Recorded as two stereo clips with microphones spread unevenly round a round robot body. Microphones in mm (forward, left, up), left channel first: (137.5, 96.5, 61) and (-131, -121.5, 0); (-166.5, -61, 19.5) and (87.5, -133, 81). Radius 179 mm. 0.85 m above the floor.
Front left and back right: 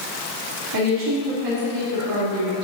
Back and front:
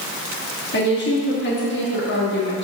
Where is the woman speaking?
160° right, 1.9 m.